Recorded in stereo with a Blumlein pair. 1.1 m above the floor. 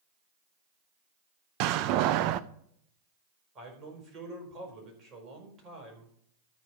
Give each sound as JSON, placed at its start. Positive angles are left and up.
{"t": 1.6, "sound": "a door slam", "azimuth_deg": -40, "distance_m": 0.5}
{"t": 3.5, "sound": "a man speaking", "azimuth_deg": -25, "distance_m": 4.5}